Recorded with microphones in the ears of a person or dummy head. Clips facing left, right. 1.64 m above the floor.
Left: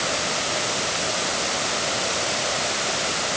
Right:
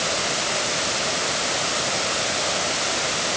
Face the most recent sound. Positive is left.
No sound to turn to.